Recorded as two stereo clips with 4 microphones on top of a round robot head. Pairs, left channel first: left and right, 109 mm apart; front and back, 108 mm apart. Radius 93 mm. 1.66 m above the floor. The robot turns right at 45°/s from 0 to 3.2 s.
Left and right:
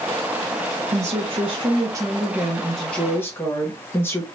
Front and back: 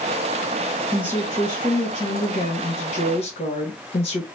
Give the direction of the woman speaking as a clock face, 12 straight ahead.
3 o'clock.